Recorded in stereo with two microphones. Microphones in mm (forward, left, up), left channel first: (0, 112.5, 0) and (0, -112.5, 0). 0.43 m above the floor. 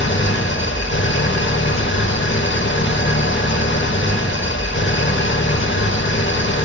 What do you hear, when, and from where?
0.0 s an engine running: 55° left (ahead or behind), 0.7 m